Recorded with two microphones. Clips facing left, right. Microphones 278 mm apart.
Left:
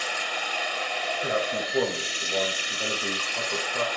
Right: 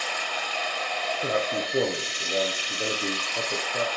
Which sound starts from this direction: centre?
Running water, at 0.0 s.